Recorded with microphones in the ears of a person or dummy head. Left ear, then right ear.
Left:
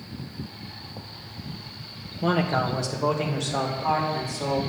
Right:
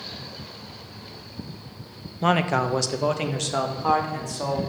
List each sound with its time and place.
2.2 s a man speaking: 60° right (ahead or behind), 1.1 m; by 4.6 s 65° right (ahead or behind), 3 m